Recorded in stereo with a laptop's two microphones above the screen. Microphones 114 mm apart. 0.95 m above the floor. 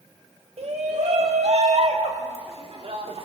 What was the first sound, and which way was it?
A shout, 70° right (ahead or behind).